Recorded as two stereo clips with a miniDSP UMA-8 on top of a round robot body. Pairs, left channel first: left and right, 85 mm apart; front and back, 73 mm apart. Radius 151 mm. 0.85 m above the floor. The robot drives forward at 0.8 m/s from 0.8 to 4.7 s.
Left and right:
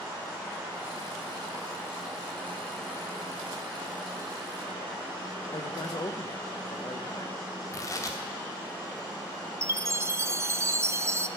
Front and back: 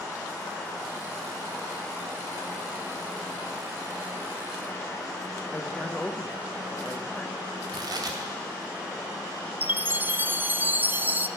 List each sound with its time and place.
5.5 s a man speaking: 70° left, 1.1 m
7.7 s tearing paper: 145° left, 1.1 m
9.6 s a chime: 130° right, 0.7 m